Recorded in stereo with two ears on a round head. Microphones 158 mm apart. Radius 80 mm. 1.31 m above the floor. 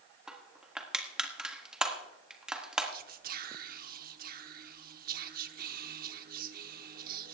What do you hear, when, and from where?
0.3 s crushing: 5° right (ahead or behind), 1.5 m
2.9 s whispering: 55° right (ahead or behind), 0.9 m